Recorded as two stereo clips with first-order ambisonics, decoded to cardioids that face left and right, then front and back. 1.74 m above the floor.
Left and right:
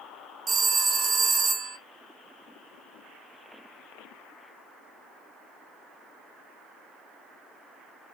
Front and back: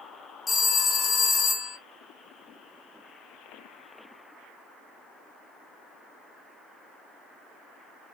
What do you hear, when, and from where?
0.5 s a phone ringing: 65° right, 0.6 m